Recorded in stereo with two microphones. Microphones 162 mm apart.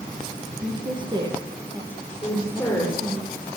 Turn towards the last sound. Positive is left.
turn(degrees=10)  # may be behind; listen again after turning